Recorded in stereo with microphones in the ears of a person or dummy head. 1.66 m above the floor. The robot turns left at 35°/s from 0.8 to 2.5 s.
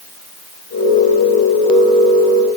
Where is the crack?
No crack in this recording.